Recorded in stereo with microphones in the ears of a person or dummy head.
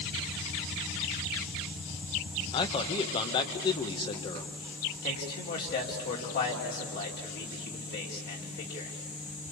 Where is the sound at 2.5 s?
30° left (ahead or behind), 1.5 m.